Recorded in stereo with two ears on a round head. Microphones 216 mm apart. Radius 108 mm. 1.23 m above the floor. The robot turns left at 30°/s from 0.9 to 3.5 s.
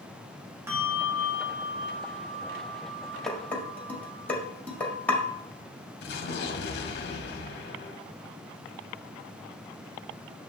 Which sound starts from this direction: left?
An explosion, at 6.0 s.